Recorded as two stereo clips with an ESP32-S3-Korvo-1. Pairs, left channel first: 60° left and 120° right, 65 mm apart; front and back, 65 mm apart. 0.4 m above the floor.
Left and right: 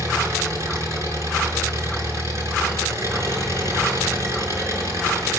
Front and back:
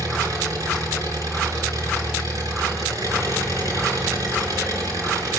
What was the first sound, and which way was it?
An engine running, 160° right.